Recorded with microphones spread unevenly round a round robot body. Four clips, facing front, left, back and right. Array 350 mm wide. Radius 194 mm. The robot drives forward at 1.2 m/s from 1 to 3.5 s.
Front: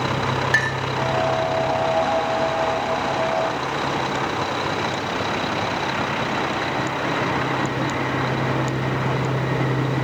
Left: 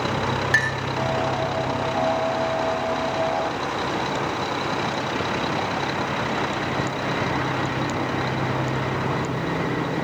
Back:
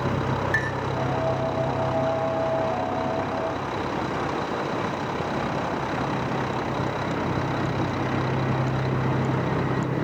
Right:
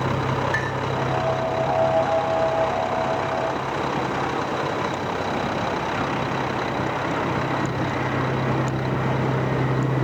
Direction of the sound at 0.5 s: 130° left.